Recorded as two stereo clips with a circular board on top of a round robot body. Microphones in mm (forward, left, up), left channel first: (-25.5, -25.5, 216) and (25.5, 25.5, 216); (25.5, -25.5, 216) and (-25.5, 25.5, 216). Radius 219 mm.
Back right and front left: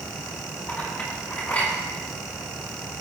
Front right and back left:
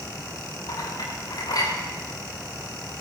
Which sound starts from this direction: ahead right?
A clink, at 0.7 s.